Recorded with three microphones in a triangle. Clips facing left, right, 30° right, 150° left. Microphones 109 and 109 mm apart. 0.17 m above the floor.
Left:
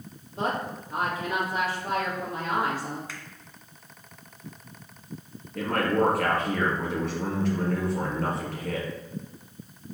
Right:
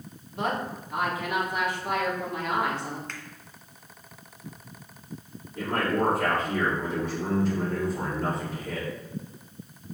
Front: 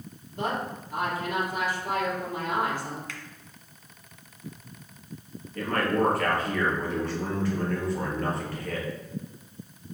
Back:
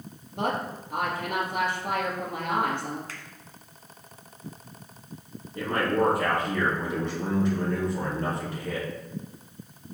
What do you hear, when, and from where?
0.3 s a woman speaking: 145° left, 2.5 m
3.1 s a finger snap: 170° left, 1.1 m
5.5 s a man speaking: 80° left, 3 m